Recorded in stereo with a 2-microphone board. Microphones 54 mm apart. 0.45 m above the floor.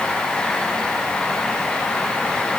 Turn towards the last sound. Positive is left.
No sound to turn to.